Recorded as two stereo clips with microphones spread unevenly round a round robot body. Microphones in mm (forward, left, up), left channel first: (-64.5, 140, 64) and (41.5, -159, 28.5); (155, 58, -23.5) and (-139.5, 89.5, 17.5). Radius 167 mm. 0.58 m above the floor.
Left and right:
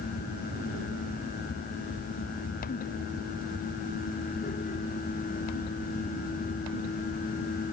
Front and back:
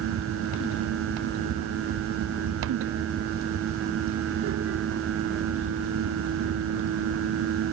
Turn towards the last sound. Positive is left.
No sound to turn to.